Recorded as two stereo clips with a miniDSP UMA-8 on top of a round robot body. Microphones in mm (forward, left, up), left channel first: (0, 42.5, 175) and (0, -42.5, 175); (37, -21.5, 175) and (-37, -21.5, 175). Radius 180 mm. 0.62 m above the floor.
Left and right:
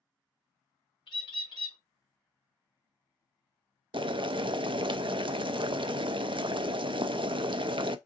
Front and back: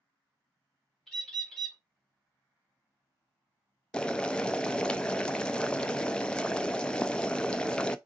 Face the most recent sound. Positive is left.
turn(degrees=-80)